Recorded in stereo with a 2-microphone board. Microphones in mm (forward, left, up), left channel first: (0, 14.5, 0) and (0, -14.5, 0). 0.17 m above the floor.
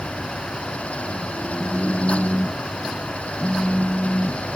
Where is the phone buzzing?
25° left (ahead or behind).